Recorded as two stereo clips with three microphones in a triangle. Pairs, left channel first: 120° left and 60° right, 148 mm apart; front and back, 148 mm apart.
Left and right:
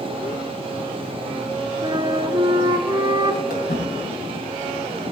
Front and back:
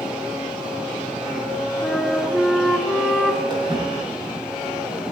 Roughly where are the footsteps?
Behind left.